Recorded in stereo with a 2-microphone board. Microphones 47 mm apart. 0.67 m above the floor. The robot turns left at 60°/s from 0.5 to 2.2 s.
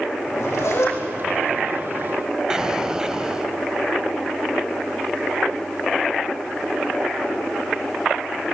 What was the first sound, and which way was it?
A zipper, 80° left.